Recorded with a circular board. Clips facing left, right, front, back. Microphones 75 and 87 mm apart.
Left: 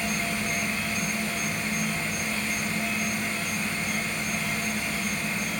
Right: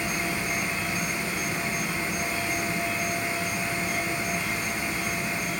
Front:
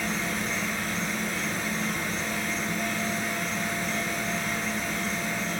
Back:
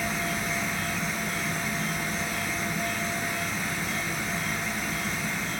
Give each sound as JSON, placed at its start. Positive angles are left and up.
{"t": 0.0, "sound": "an insect", "azimuth_deg": -65, "distance_m": 2.5}